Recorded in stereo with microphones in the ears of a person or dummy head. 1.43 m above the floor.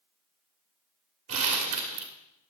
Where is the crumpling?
35° right (ahead or behind), 1.7 m.